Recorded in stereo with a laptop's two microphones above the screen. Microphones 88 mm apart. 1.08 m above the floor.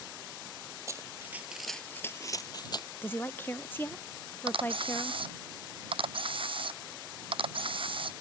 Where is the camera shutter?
85° right.